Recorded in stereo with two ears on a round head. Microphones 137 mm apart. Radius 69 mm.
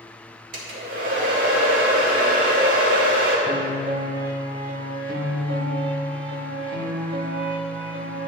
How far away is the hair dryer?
About 1.9 m.